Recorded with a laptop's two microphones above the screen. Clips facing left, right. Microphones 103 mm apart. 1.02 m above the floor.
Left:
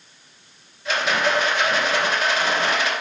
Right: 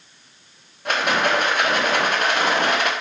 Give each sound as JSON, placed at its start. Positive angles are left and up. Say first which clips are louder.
{"t": 0.8, "sound": "a rattle", "louder": "right 1 dB", "side_deg": -50, "distance_m": 0.6}